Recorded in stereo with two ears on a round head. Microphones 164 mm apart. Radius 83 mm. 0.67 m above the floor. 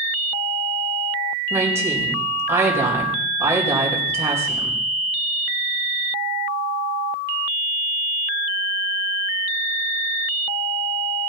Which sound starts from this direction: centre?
A woman speaking, at 1.5 s.